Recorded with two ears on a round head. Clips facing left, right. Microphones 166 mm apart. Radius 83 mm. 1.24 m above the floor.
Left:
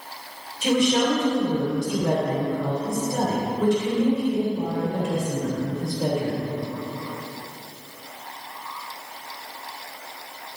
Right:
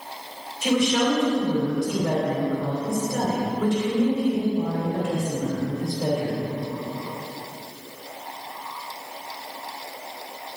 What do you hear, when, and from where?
0.6 s a woman speaking: 20° left (ahead or behind), 3.5 m